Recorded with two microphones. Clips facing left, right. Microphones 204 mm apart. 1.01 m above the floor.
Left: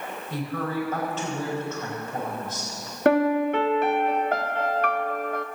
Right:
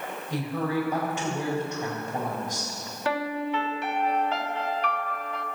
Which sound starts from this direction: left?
A piano, at 3.0 s.